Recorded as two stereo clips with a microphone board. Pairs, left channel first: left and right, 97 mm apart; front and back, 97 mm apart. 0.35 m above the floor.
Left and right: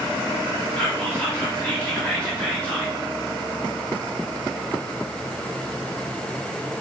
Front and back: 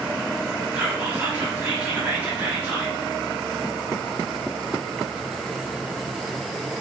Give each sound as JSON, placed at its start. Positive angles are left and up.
{"t": 0.8, "sound": "whispering", "azimuth_deg": 145, "distance_m": 0.9}